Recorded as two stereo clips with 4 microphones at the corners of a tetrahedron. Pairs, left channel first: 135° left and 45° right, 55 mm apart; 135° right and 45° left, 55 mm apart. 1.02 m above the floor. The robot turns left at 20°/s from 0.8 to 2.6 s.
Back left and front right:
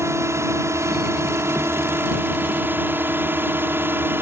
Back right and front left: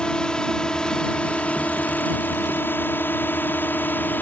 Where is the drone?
60° right; by 4.2 s 85° right.